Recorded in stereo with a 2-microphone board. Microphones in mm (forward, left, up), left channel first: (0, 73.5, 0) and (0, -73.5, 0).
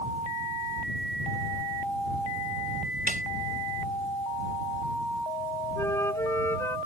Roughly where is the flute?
Centre.